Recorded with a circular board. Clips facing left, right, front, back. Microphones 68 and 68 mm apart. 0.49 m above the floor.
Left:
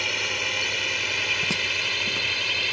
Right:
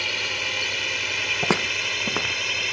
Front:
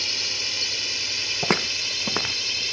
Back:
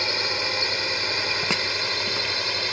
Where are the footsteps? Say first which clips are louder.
Right 4 dB, front 1 dB; 60° right; by 2.6 s 45° right.